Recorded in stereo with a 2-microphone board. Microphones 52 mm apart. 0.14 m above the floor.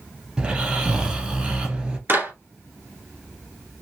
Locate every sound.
0.4 s snoring: 20° right (ahead or behind), 1.5 m
2.1 s a clap: 50° right (ahead or behind), 2.5 m